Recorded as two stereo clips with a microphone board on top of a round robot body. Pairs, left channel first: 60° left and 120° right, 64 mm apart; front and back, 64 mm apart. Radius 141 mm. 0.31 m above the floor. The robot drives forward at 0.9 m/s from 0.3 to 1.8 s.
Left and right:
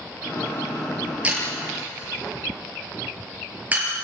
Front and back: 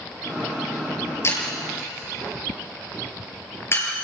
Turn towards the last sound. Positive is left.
turn(degrees=-55)